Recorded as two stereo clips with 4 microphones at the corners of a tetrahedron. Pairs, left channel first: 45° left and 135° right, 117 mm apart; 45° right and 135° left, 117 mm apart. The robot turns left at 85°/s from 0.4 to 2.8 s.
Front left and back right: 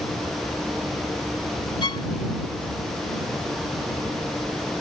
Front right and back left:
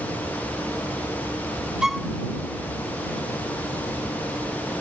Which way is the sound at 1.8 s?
55° left.